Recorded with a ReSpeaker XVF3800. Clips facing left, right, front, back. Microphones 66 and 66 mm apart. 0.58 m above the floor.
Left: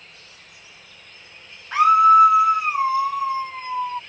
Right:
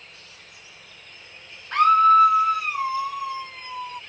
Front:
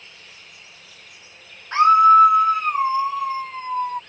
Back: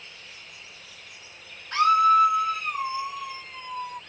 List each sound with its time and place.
1.7 s a scream: 10° left; by 4.0 s 40° left